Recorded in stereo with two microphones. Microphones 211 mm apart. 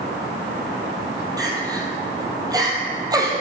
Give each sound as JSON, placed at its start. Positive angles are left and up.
{"t": 1.4, "sound": "crying", "side_deg": -15, "distance_m": 1.9}